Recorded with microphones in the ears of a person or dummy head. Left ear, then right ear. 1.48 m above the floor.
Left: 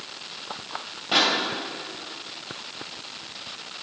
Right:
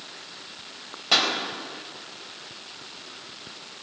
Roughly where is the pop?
Right.